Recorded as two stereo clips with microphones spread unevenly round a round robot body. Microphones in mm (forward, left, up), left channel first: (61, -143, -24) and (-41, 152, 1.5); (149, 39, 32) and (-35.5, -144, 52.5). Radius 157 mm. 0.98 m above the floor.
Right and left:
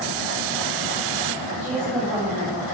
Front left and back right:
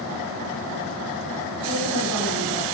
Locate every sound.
1.6 s a woman speaking: 160° right, 6.5 m